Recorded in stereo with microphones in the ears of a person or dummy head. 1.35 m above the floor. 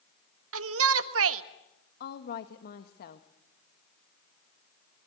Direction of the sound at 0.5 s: 75° right (ahead or behind).